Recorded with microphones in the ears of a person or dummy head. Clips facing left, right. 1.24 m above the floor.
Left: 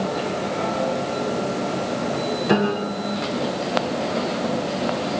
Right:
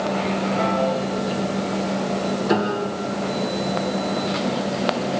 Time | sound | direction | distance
2.5 | a piano | 40° left (ahead or behind) | 2.5 m